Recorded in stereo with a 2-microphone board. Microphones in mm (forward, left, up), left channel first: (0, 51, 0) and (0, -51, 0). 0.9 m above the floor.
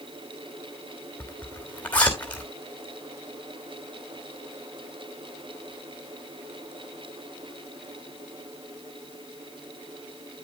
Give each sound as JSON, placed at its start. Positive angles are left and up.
{"t": 1.2, "sound": "a zipper", "side_deg": 15, "distance_m": 3.0}